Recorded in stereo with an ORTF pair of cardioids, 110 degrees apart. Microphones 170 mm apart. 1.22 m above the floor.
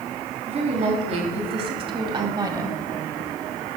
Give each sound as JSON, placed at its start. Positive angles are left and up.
{"t": 0.5, "sound": "a woman speaking", "azimuth_deg": -45, "distance_m": 3.5}